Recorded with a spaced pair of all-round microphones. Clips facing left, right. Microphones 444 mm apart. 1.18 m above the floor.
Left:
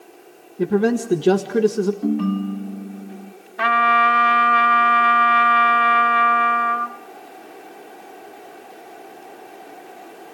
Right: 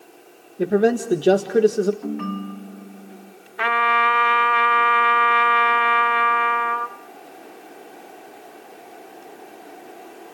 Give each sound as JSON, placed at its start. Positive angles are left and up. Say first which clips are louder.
{"t": 0.6, "sound": "a man speaking", "louder": "even", "side_deg": 15, "distance_m": 1.7}
{"t": 2.0, "sound": "a ringtone", "louder": "left 7 dB", "side_deg": 50, "distance_m": 0.9}
{"t": 3.6, "sound": "a trumpet", "louder": "left 2 dB", "side_deg": 55, "distance_m": 1.3}